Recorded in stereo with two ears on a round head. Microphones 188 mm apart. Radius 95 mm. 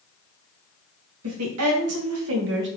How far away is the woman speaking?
About 1.0 m.